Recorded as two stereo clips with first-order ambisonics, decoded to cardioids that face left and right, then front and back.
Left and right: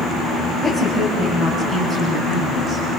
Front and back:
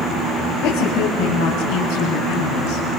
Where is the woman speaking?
Straight ahead, 3.5 m; by 2.8 s 20° right, 5 m.